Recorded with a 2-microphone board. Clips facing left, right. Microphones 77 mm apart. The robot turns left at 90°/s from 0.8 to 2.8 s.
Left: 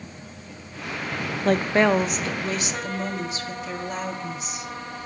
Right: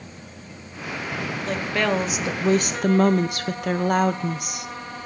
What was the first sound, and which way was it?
A woman speaking, 55° left.